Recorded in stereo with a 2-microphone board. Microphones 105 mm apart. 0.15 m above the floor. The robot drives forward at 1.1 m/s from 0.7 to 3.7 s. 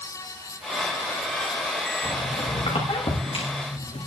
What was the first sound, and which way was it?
A squeak, 70° left (ahead or behind).